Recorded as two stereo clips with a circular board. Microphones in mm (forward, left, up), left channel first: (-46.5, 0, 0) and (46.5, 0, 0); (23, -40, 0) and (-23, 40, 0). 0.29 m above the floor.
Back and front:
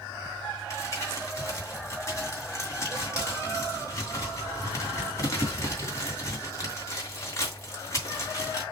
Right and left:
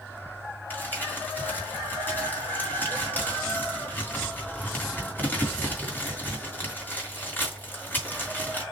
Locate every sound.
0.7 s crumpling: 125° right, 2.5 m